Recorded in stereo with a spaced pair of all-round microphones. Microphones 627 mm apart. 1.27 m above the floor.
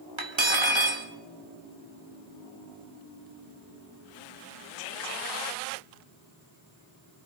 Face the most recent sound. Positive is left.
turn(degrees=-45)  # may be behind; listen again after turning